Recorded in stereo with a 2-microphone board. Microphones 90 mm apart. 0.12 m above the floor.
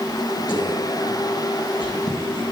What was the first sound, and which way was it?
Whispering, 55° left (ahead or behind).